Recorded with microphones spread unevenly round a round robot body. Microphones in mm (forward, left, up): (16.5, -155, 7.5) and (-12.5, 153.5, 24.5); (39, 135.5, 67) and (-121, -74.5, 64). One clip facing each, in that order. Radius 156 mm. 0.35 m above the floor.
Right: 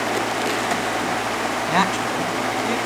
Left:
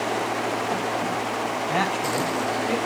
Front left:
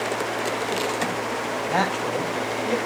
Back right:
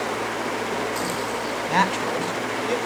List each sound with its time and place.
1.7 s a woman speaking: 75° right, 3 m